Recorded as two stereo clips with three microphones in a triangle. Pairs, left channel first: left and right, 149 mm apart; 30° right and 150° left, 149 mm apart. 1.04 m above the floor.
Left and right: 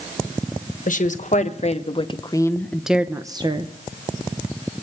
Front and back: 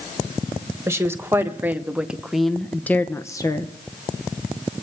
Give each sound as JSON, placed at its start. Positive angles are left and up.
{"t": 0.9, "sound": "a woman speaking", "azimuth_deg": 80, "distance_m": 1.2}